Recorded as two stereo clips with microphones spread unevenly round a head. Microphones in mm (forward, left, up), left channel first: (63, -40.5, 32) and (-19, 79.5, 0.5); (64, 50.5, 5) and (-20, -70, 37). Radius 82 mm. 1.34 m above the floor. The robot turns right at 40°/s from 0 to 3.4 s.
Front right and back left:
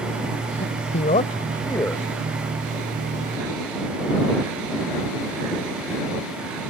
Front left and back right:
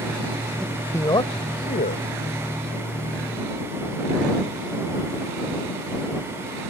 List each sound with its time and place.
0.6 s a man speaking: 35° right; by 2.0 s 25° left